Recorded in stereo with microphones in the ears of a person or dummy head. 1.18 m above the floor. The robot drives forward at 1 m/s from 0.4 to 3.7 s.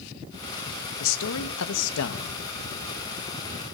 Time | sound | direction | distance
1.0 | a man speaking | 70° left (ahead or behind) | 1.7 m